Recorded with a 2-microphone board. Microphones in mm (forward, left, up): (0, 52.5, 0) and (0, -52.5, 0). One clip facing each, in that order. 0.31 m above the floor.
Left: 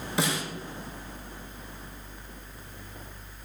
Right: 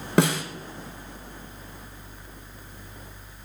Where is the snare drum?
65° right (ahead or behind), 1.0 m.